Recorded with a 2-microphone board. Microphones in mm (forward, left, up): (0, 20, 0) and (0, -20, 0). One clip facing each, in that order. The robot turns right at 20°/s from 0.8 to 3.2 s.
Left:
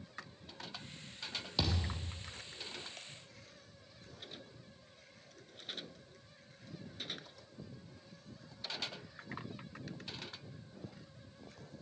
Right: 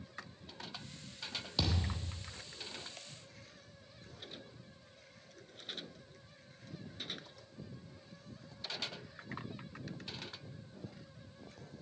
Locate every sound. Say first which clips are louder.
1.6 s a thud: even; 5° left (ahead or behind), 2.5 m; by 2.2 s 5° right (ahead or behind), 2.5 m